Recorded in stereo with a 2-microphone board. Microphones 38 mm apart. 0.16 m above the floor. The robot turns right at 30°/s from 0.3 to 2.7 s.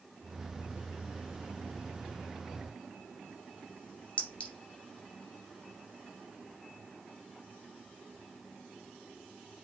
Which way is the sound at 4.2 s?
35° left (ahead or behind).